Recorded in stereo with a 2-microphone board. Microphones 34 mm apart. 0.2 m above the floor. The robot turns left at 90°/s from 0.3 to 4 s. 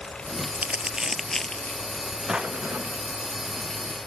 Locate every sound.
0.6 s crumpling: 55° right (ahead or behind); by 1.8 s 50° left (ahead or behind)
2.3 s a drawer: 20° right; by 3.0 s 85° right